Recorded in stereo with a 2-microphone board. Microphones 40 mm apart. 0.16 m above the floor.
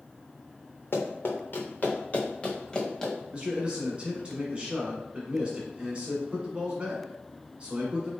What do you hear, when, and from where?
0.9 s running footsteps: 70° left (ahead or behind), 1.3 m; by 3.1 s 10° left (ahead or behind), 1.5 m
3.3 s a man speaking: 25° right (ahead or behind), 1.5 m